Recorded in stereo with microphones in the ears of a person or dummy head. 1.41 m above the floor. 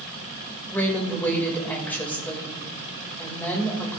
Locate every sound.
0.7 s a woman speaking: 10° left (ahead or behind), 2 m